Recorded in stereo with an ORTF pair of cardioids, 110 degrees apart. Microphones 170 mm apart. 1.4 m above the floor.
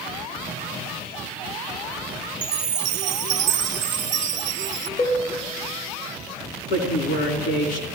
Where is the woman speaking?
65° left, 4 m.